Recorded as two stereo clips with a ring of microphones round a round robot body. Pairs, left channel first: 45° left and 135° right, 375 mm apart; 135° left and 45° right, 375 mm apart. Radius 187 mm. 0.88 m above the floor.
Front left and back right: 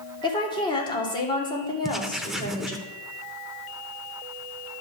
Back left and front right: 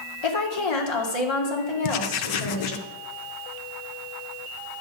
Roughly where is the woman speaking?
Behind left.